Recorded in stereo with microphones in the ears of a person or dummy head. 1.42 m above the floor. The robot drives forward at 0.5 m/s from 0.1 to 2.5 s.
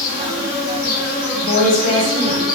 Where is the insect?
60° left (ahead or behind), 0.7 m; by 2.6 s 25° left (ahead or behind), 1.4 m.